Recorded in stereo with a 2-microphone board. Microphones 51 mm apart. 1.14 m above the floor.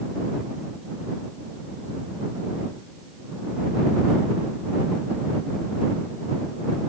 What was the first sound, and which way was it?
Only background noise.